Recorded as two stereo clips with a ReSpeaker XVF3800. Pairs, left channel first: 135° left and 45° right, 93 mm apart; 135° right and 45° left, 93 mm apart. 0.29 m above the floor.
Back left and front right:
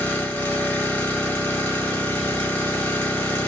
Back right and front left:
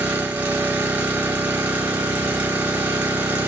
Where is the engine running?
85° left, 0.8 m.